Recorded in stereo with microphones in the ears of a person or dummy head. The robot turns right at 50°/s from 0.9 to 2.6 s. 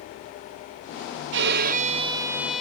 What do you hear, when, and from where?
1.3 s a violin: 65° right, 0.5 m; by 2.6 s straight ahead, 0.5 m